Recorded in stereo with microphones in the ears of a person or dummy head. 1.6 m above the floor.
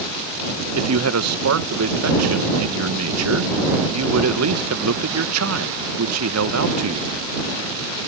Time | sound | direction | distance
0.8 | a man speaking | 90° right | ?